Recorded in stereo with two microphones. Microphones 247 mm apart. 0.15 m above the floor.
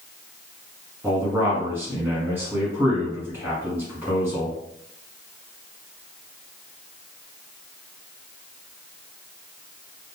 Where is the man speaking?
10° right (ahead or behind), 1.3 m.